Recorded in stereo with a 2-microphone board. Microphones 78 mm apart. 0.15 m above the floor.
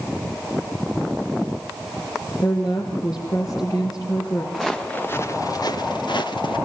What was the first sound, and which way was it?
A woman speaking, 45° left (ahead or behind).